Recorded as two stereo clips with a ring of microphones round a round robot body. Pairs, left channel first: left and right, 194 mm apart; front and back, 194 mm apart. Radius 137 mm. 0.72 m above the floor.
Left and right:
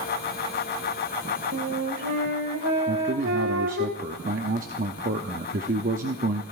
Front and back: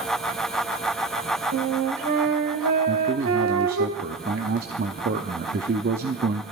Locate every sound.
1.5 s a flute: 145° right, 1.6 m
2.9 s a man speaking: 135° right, 0.7 m